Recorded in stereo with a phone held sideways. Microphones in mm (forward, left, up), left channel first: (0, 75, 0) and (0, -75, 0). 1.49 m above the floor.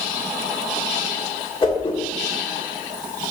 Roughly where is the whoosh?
Left.